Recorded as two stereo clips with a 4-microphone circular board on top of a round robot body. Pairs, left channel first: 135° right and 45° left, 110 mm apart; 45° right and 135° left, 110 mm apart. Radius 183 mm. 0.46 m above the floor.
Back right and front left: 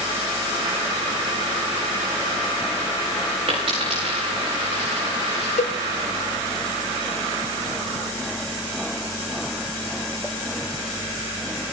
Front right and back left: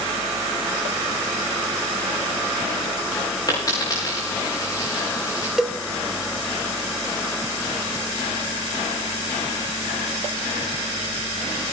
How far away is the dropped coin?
About 7 m.